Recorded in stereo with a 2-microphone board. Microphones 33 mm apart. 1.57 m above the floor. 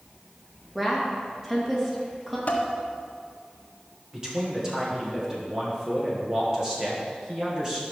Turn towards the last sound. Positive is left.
turn(degrees=-20)  # may be behind; listen again after turning